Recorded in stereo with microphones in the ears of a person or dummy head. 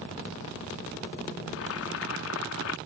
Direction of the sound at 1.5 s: 70° left (ahead or behind).